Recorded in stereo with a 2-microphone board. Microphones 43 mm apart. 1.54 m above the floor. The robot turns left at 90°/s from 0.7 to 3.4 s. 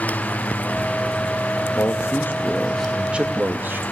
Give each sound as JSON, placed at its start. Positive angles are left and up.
{"t": 1.8, "sound": "a man speaking", "azimuth_deg": 100, "distance_m": 2.0}